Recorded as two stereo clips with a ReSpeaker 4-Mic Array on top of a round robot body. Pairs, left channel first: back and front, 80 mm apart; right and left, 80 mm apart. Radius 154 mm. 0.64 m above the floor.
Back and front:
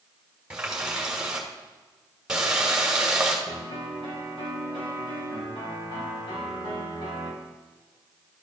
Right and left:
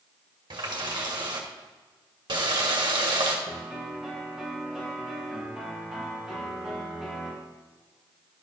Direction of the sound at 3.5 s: 175° left.